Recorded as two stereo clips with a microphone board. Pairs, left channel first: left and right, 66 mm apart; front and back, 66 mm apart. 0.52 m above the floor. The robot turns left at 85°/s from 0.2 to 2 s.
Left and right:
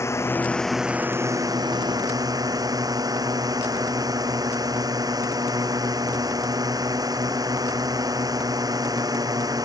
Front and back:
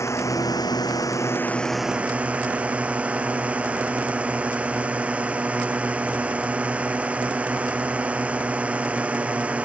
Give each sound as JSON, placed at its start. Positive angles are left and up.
{"t": 0.0, "sound": "a drone", "azimuth_deg": 45}